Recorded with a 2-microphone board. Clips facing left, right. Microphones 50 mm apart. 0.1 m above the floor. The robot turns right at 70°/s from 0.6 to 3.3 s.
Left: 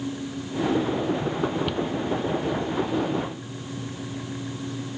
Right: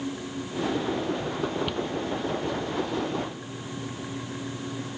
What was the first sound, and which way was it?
A cupboard door, 5° left (ahead or behind).